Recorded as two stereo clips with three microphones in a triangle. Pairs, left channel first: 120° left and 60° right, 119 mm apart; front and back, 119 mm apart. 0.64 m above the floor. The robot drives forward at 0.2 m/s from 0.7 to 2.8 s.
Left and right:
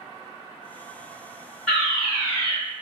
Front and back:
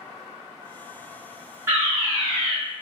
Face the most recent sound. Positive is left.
turn(degrees=-170)